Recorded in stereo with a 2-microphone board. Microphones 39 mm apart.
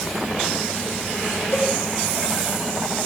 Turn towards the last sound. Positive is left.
turn(degrees=65)  # may be behind; listen again after turning